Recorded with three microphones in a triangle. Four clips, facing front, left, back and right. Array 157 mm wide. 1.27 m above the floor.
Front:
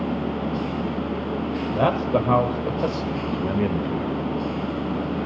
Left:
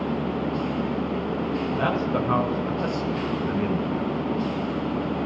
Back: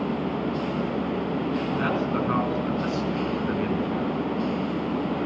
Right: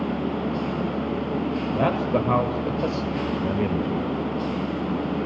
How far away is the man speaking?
About 5.5 m.